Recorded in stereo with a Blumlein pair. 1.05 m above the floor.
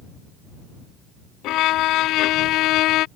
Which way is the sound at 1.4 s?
35° left.